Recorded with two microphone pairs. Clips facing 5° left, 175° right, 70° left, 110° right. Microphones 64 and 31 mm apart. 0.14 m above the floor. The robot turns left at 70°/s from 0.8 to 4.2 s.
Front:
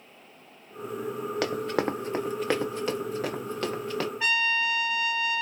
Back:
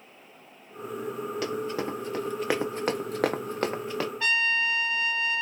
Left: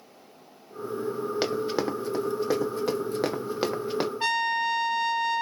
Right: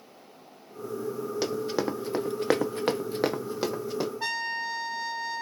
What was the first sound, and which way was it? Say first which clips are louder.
Running footsteps: front 4 dB, left 1 dB; 20° left.